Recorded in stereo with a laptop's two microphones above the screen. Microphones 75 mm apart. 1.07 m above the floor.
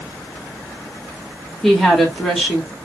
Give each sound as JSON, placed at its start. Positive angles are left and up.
{"t": 1.6, "sound": "a woman speaking", "side_deg": 5, "distance_m": 2.5}